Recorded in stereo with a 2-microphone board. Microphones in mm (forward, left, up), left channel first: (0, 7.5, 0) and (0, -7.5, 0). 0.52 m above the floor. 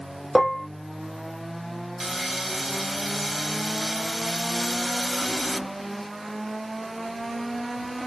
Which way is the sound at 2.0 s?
10° right (ahead or behind).